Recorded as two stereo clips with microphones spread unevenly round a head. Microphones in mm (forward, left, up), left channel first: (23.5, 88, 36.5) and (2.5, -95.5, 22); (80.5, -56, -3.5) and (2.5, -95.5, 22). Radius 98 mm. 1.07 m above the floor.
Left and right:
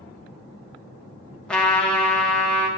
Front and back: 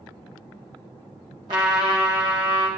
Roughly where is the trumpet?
Behind.